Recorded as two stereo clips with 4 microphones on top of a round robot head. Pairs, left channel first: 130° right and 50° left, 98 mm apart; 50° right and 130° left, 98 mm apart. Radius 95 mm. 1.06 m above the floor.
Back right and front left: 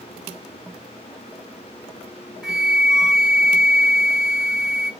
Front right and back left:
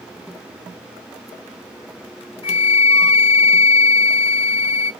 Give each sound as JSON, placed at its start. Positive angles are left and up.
{"t": 2.4, "sound": "a flute", "azimuth_deg": -35, "distance_m": 1.7}